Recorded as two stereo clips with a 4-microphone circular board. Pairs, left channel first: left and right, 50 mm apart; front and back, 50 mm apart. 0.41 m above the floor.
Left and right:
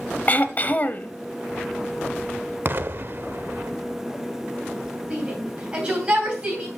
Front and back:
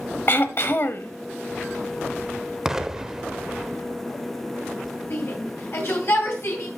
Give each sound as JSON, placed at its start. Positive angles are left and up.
{"t": 0.3, "sound": "throat clearing", "azimuth_deg": 40, "distance_m": 0.7}
{"t": 2.6, "sound": "an explosion", "azimuth_deg": -105, "distance_m": 0.7}
{"t": 5.1, "sound": "a shout", "azimuth_deg": -20, "distance_m": 2.5}